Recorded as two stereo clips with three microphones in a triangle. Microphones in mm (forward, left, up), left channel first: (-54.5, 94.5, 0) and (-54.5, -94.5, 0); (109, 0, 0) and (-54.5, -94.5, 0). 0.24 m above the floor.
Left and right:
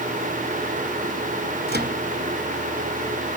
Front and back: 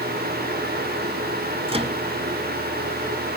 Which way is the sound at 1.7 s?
95° right.